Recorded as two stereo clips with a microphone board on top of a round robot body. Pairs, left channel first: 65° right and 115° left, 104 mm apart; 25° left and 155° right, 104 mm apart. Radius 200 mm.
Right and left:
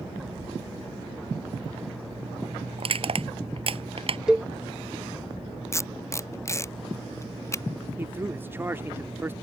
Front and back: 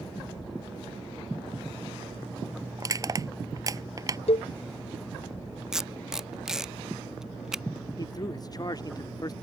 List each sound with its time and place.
2.8 s crushing: 145° left
4.3 s a cowbell: 30° left
5.7 s tape being pulled: 80° right
8.0 s a man speaking: 50° left